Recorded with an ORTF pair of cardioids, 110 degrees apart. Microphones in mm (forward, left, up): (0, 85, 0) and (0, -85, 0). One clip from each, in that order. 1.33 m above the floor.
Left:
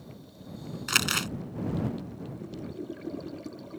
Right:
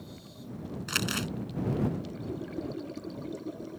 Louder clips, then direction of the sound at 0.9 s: Left 5 dB; 40° left.